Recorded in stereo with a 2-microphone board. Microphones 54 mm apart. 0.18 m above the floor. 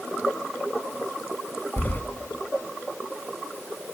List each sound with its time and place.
1.8 s keys jangling: 35° left (ahead or behind), 1.1 m